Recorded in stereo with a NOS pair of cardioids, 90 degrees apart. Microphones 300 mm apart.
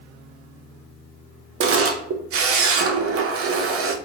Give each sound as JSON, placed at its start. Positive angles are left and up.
{"t": 1.6, "sound": "a camera shutter", "azimuth_deg": -50, "distance_m": 0.8}